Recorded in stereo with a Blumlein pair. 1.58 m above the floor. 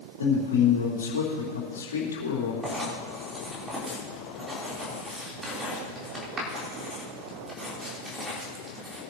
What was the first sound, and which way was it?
A man speaking, 65° left.